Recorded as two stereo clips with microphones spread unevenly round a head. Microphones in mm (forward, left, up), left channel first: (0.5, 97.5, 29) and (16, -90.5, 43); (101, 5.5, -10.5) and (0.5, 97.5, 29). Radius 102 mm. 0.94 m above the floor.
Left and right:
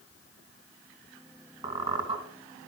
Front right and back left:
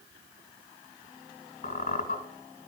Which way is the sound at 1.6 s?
20° right.